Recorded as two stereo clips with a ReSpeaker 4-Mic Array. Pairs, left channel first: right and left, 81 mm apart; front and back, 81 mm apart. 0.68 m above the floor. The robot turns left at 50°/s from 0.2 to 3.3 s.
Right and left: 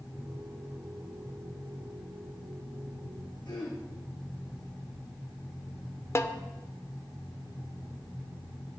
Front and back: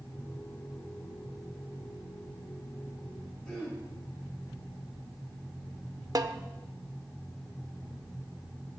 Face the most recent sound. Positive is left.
turn(degrees=-145)